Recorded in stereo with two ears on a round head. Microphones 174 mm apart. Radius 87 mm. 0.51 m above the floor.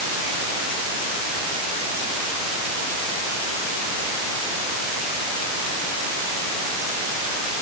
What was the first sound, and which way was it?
Only background noise.